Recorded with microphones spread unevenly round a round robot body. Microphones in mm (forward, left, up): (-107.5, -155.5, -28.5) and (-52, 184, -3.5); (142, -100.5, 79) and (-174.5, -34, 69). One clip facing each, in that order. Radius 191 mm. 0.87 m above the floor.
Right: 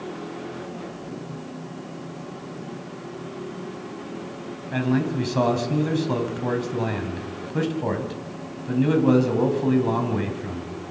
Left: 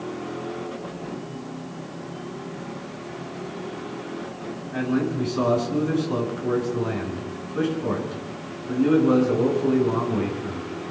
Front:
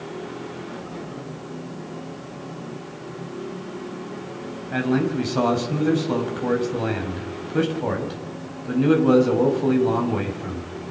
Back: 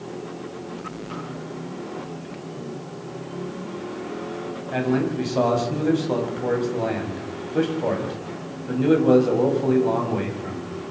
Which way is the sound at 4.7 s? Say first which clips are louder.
Right 1 dB, front 1 dB; 80° right.